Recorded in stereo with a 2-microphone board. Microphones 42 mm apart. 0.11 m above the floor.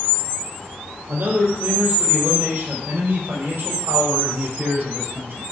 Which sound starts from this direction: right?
A man speaking, at 1.1 s.